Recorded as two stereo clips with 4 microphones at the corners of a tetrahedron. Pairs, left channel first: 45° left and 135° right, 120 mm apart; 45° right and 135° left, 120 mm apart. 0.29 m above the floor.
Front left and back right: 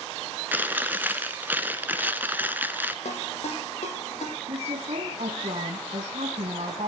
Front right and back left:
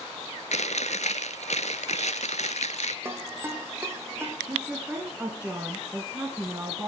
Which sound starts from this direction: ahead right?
Chewing, at 0.5 s.